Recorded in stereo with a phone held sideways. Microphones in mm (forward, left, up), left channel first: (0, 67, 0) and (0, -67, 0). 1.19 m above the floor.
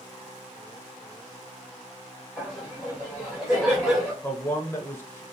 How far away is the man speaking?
About 0.5 m.